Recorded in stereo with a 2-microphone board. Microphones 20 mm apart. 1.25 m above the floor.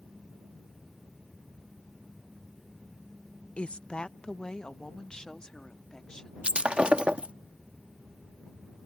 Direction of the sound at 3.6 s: 65° left (ahead or behind).